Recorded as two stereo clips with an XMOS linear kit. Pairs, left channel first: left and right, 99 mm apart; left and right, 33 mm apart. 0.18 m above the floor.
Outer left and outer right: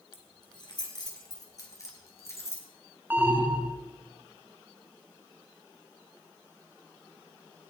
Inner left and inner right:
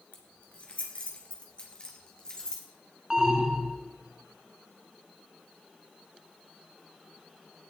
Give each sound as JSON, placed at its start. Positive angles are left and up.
{"t": 0.1, "sound": "keys jangling", "side_deg": 50, "distance_m": 2.5}
{"t": 3.1, "sound": "an alarm", "side_deg": -20, "distance_m": 1.3}